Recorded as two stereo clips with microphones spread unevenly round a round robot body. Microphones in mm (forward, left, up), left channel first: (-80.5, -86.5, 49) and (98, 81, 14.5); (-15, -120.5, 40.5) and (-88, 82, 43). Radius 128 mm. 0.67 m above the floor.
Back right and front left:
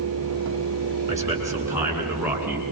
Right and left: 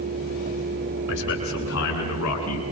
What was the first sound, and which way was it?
A man speaking, 35° right.